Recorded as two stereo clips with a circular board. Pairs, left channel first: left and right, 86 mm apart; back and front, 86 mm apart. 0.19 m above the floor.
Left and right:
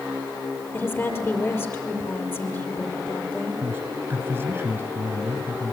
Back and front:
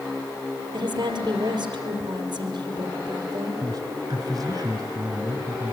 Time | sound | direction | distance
0.7 | a woman speaking | 30° left | 6 m
3.6 | a man speaking | 30° right | 3 m